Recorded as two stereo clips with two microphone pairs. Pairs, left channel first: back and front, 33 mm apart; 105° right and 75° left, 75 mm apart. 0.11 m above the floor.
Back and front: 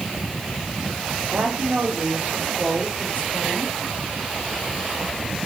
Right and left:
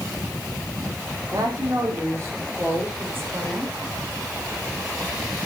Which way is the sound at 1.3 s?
35° left.